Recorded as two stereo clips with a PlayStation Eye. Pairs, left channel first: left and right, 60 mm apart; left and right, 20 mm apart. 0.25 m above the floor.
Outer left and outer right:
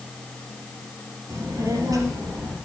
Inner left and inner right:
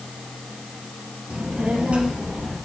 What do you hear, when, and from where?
1.3 s a child speaking: 80° right, 3.5 m